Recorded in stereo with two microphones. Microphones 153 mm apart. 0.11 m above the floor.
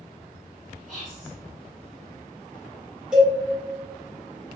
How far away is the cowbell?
About 1.3 m.